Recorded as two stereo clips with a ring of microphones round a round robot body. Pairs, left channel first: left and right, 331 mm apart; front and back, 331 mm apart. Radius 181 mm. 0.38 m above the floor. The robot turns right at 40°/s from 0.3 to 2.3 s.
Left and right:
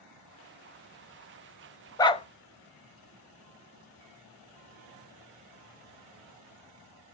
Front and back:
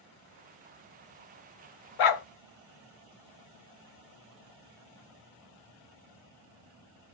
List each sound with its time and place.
2.0 s a dog barking: 10° left, 0.8 m; by 2.2 s 20° left, 0.8 m